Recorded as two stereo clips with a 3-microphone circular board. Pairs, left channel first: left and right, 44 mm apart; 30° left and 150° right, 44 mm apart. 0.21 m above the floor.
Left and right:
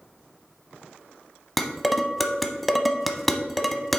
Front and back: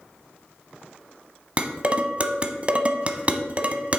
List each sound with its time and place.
1.6 s dishes clattering: 175° left, 0.8 m